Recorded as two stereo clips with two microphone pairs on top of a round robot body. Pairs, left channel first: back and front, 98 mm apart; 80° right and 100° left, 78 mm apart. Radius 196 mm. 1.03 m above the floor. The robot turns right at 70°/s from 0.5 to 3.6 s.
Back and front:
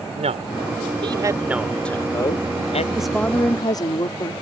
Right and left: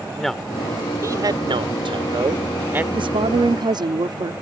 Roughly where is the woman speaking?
Left.